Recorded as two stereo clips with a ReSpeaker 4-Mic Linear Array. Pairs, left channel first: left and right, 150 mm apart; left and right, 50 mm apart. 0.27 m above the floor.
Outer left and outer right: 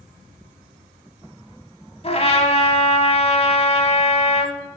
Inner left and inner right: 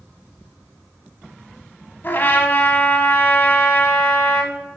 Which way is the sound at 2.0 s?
40° left (ahead or behind).